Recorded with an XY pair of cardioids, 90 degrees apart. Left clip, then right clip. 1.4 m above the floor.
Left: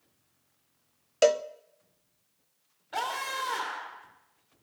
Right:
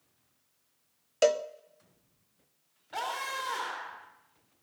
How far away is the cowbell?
About 0.6 m.